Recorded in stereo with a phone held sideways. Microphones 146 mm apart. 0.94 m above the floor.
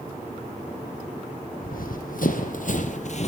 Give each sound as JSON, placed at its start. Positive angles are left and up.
{"t": 1.6, "sound": "running footsteps", "side_deg": 70, "distance_m": 2.5}